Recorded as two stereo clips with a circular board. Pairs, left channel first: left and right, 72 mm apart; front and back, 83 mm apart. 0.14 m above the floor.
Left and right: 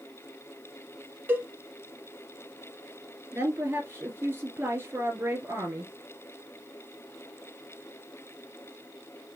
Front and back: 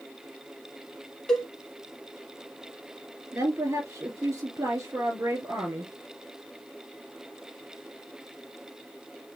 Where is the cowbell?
75° right, 1.2 m.